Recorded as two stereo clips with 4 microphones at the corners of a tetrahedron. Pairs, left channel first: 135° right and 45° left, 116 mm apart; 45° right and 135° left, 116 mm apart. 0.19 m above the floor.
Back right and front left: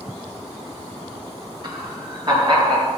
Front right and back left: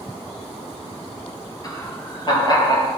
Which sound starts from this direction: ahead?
Laughter, at 1.6 s.